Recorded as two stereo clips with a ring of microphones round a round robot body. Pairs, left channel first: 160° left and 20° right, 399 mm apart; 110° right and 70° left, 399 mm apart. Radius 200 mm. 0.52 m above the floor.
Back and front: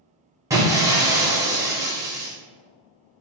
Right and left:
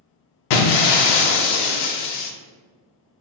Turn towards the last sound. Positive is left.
turn(degrees=-105)